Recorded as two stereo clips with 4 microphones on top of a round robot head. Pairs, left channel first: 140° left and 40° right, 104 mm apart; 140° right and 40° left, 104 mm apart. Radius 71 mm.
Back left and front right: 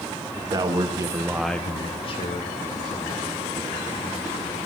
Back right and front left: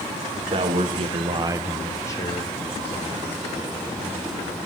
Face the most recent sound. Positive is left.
turn(degrees=180)